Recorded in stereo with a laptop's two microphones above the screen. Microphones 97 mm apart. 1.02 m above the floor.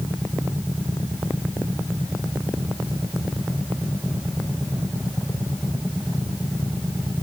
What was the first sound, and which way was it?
Only background noise.